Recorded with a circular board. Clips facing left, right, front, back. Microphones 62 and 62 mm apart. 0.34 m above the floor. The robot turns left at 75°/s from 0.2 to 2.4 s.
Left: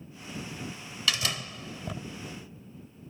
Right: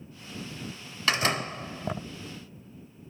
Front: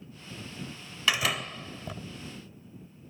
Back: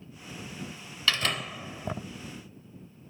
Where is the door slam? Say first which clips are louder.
Right 5 dB, front 1 dB; 65° right; by 2.1 s 140° right.